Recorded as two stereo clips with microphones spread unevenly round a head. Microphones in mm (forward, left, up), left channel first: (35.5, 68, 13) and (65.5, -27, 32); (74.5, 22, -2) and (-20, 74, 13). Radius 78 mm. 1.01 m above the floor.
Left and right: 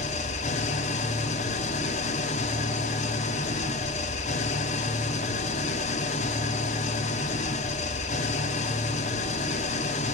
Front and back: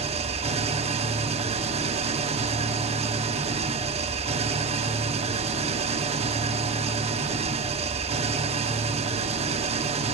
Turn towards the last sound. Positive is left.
turn(degrees=130)